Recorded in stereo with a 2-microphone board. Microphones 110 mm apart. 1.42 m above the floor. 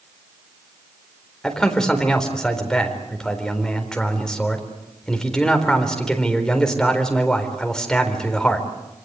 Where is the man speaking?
5° left (ahead or behind), 4 m.